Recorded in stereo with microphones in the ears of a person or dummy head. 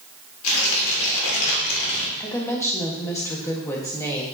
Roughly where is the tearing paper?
Left.